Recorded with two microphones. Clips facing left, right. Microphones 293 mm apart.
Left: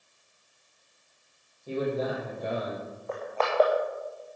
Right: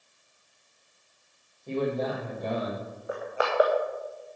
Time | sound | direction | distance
1.7 | a man speaking | 5° left (ahead or behind) | 6 m
3.1 | crushing | 10° right (ahead or behind) | 3 m